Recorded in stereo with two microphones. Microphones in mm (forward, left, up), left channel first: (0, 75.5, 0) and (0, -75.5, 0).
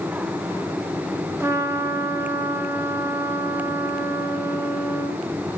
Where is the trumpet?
20° right (ahead or behind), 1.5 m.